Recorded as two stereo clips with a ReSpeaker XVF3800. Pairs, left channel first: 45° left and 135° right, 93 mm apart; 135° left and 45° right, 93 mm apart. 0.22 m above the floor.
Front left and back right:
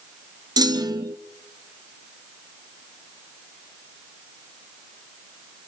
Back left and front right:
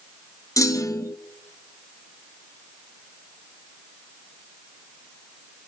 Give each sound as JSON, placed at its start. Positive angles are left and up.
{"t": 0.6, "sound": "a clunk", "azimuth_deg": -175, "distance_m": 0.8}